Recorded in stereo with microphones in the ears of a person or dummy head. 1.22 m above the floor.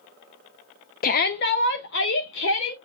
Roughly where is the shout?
Left.